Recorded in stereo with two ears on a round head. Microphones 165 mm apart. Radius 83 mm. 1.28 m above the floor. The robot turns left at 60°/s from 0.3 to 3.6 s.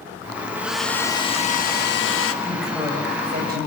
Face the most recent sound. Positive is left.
turn(degrees=-60)